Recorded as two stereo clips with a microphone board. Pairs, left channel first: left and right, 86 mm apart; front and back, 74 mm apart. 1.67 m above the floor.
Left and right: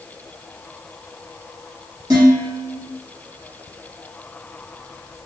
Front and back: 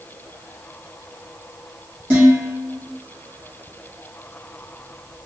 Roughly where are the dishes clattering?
Behind right.